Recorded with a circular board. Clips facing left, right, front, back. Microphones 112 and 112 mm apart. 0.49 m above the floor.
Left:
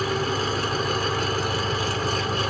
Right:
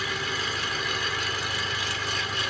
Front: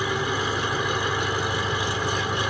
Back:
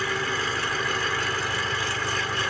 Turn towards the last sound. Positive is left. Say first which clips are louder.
# left 7 dB, front 2 dB
turn(degrees=65)